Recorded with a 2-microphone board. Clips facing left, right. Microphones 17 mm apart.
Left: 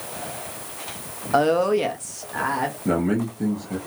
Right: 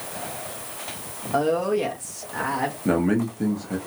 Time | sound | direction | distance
1.3 | a woman speaking | 40° left (ahead or behind) | 0.6 m
2.9 | a man speaking | 15° right (ahead or behind) | 0.7 m